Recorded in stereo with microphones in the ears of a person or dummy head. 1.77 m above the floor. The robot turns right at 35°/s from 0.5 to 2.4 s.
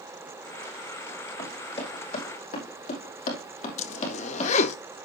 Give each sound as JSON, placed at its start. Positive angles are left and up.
{"t": 1.4, "sound": "running footsteps", "side_deg": 25, "distance_m": 6.5}
{"t": 3.8, "sound": "a zipper", "side_deg": 45, "distance_m": 0.9}